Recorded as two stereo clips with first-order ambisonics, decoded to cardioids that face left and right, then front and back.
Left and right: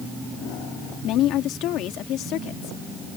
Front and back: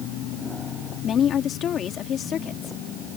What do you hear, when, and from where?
1.0 s a woman speaking: 55° left